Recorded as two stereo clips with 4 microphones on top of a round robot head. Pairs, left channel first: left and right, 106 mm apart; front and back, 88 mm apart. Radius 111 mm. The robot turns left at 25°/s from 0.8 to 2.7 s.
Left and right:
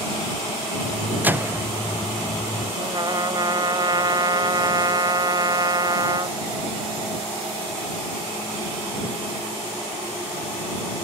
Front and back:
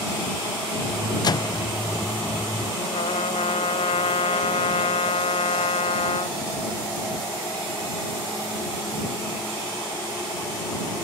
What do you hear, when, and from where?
1.2 s a microwave: 20° right; by 1.6 s 30° right
2.8 s a trumpet: 35° right